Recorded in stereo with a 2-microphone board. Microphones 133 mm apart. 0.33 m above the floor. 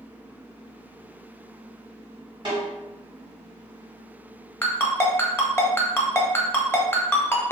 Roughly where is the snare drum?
Right.